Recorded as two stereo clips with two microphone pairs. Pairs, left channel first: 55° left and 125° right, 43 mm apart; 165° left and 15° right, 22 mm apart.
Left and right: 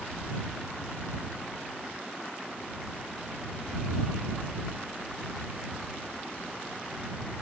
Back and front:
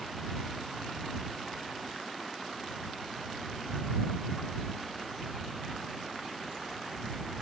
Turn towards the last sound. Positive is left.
No sound to turn to.